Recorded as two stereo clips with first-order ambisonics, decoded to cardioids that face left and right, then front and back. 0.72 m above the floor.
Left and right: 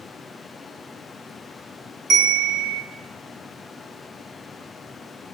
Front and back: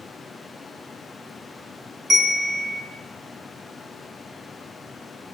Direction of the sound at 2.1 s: 120° right.